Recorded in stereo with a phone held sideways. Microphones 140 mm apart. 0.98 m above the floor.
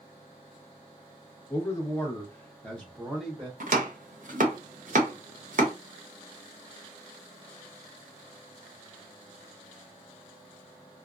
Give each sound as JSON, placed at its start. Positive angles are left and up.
{"t": 1.5, "sound": "a man speaking", "side_deg": 15, "distance_m": 0.9}
{"t": 3.6, "sound": "chopping", "side_deg": -65, "distance_m": 0.6}